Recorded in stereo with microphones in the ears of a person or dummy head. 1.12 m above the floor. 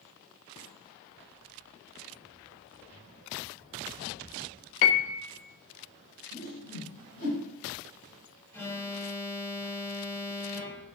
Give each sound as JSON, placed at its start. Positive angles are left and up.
{"t": 4.8, "sound": "a piano", "side_deg": 75, "distance_m": 0.7}
{"t": 6.3, "sound": "a whoosh", "side_deg": 50, "distance_m": 4.5}
{"t": 8.5, "sound": "an alarm", "side_deg": 15, "distance_m": 2.0}